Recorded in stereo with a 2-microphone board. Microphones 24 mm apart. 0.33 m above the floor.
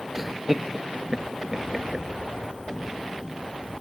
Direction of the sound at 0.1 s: 10° right (ahead or behind).